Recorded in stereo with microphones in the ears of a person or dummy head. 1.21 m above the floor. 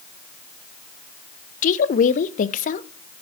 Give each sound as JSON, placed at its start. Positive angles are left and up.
{"t": 1.6, "sound": "a woman speaking", "side_deg": 40, "distance_m": 0.7}